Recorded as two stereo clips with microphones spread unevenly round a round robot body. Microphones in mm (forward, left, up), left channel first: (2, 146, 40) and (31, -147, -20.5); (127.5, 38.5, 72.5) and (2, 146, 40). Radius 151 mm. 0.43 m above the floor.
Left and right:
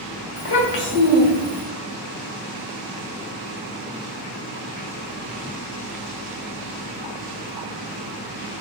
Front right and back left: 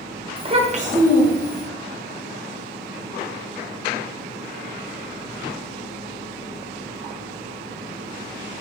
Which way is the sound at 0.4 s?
85° left.